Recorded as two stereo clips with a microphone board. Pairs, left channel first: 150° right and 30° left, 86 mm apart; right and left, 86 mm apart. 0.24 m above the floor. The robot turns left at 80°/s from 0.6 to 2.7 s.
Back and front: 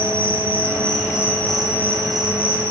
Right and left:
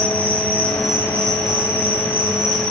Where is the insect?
160° right, 9 m; by 2.7 s 30° left, 9 m.